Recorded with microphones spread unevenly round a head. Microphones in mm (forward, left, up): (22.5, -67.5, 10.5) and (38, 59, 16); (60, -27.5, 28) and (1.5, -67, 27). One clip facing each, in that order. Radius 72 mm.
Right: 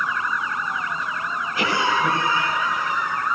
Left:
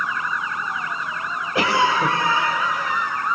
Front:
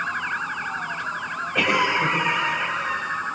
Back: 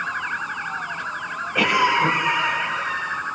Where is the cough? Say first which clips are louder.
Left 3 dB, back 3 dB; 125° left, 7.5 m.